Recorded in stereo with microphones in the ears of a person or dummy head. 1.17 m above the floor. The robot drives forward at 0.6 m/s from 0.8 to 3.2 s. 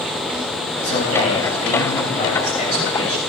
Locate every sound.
0.8 s a man speaking: 50° left (ahead or behind), 5.5 m; by 3.2 s 40° left (ahead or behind), 6.5 m